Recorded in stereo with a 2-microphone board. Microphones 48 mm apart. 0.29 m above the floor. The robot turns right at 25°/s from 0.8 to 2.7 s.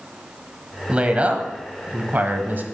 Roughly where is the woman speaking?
Behind right.